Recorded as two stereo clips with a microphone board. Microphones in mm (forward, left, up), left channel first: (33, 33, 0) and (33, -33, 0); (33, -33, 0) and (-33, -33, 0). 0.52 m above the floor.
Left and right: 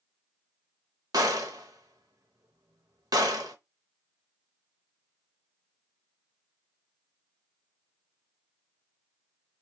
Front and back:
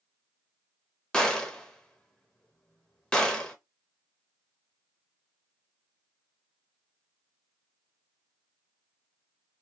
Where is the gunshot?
80° right, 0.8 m.